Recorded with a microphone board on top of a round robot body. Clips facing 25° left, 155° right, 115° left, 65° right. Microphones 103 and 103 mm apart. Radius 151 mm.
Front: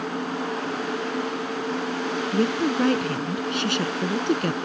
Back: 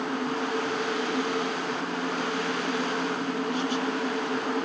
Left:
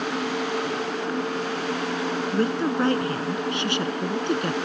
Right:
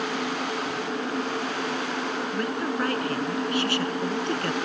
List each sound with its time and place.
2.3 s a woman speaking: 50° left; by 4.6 s 40° left